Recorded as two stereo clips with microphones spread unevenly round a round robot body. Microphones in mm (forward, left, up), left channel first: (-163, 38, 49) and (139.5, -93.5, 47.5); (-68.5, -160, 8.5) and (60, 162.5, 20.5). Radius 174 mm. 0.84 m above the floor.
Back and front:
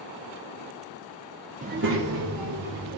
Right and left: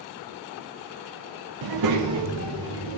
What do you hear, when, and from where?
1.6 s a child speaking: 45° left, 0.8 m; by 3.0 s 15° left, 2.5 m